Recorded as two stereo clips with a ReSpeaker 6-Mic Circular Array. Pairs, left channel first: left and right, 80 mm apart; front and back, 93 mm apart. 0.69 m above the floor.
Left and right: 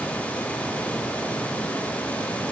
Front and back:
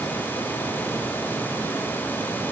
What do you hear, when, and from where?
Only background noise.